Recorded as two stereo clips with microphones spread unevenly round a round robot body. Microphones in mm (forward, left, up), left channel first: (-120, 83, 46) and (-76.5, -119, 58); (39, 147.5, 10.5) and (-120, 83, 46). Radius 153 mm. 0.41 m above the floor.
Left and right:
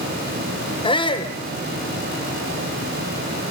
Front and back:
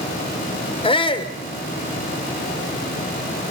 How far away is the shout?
About 1.0 m.